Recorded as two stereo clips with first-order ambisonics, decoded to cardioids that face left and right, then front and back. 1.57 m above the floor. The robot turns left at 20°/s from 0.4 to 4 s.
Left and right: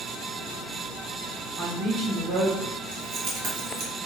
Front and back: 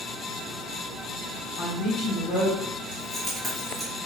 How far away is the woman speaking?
About 1.4 m.